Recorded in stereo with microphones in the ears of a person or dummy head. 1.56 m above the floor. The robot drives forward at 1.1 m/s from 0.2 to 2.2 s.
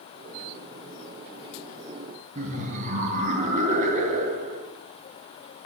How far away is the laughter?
About 1.2 m.